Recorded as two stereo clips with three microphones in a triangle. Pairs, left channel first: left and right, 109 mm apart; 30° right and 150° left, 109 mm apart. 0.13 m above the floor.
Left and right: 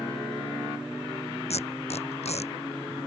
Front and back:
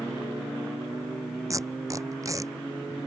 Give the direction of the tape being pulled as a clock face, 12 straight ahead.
9 o'clock.